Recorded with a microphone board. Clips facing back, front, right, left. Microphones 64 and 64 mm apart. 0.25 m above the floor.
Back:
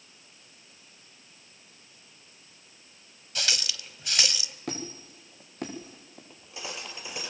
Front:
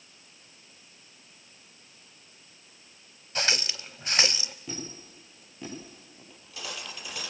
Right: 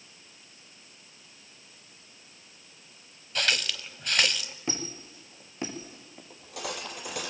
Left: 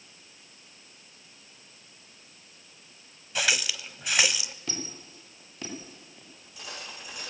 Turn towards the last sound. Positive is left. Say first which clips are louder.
# even, right 7 dB
turn(degrees=-115)